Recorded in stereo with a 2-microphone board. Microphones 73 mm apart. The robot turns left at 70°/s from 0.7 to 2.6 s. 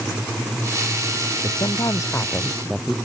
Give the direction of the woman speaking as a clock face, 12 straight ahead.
9 o'clock.